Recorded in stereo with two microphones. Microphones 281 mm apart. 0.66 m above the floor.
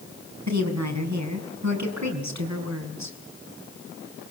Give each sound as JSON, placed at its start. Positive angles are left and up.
{"t": 0.5, "sound": "a woman speaking", "side_deg": -75, "distance_m": 5.5}